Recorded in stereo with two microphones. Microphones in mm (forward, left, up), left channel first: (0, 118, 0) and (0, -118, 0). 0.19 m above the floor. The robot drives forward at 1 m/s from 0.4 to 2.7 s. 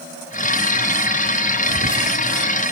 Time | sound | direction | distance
1.7 | whispering | 70° right (ahead or behind) | 3.5 m